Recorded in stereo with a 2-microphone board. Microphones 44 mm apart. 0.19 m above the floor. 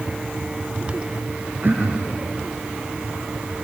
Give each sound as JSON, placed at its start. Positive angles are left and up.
{"t": 1.6, "sound": "throat clearing", "side_deg": -50, "distance_m": 3.5}